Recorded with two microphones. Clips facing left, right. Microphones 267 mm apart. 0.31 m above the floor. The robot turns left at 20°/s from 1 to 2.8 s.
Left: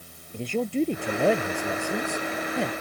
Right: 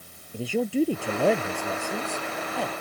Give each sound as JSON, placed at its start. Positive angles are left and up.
{"t": 0.3, "sound": "a man speaking", "azimuth_deg": -175}